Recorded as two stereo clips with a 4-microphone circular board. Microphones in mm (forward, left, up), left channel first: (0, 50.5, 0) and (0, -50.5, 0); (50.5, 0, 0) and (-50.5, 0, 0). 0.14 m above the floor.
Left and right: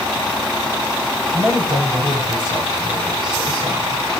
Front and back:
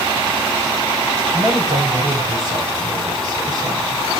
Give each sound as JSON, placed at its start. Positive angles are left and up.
{"t": 1.2, "sound": "a man speaking", "azimuth_deg": -135, "distance_m": 9.5}